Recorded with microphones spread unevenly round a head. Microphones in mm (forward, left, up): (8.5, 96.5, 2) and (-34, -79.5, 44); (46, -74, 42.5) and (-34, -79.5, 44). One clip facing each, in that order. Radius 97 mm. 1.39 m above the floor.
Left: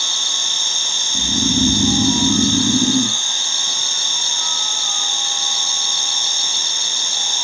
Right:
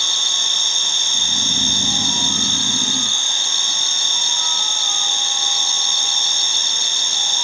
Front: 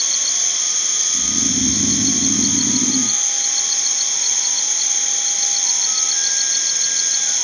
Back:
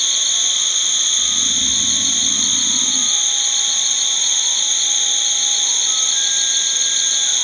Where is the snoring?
60° left.